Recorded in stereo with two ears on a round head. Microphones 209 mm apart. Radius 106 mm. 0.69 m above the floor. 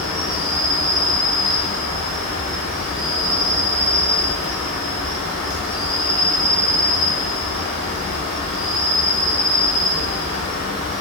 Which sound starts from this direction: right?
An insect, at 0.0 s.